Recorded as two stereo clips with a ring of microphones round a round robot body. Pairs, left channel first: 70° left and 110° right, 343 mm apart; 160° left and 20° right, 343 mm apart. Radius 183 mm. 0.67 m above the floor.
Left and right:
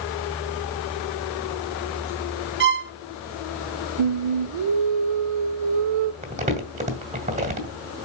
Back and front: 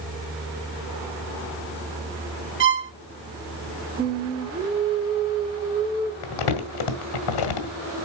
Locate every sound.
2.6 s a violin: 65° right, 1.3 m
4.0 s singing: 100° right, 0.7 m
6.2 s crumpling: 175° left, 1.6 m